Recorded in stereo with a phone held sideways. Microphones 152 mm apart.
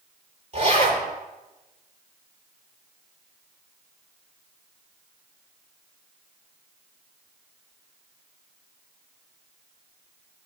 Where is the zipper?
50° right (ahead or behind), 7.5 m.